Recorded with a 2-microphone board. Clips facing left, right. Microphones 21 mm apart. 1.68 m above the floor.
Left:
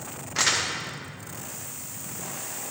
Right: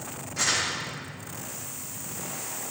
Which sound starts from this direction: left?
Crumpling, at 0.3 s.